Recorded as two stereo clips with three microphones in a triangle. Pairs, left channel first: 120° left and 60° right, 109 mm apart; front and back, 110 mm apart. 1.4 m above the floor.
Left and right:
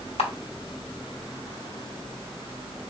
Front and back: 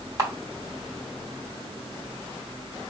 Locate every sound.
0.2 s a camera shutter: 120° left, 1.0 m